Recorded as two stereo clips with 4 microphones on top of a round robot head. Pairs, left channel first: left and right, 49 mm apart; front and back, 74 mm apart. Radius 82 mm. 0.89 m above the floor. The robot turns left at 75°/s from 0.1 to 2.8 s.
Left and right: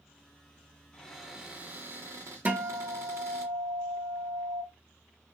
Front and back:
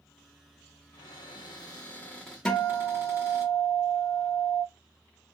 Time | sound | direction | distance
0.9 | a cupboard door | 15° left | 1.6 m
2.5 | a guitar | 65° right | 0.8 m